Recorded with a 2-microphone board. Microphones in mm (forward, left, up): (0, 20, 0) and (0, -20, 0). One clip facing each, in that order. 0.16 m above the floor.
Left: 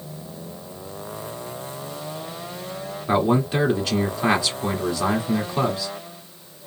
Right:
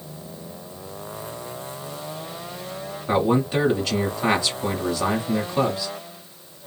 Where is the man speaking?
5° left (ahead or behind), 1.1 m.